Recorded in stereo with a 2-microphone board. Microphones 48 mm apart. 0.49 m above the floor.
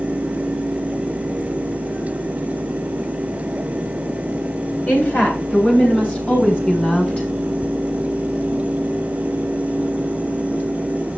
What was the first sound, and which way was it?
A woman speaking, 40° left (ahead or behind).